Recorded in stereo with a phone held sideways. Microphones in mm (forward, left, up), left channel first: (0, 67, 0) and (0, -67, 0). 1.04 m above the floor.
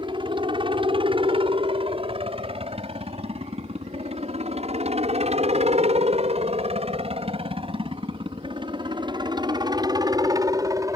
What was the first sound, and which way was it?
A helicopter, 35° right (ahead or behind).